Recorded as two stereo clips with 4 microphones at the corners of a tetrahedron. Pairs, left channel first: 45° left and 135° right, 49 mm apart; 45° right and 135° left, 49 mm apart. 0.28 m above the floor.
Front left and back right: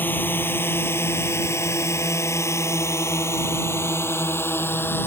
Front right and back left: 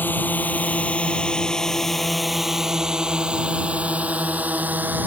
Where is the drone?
Straight ahead; by 5.1 s 85° left.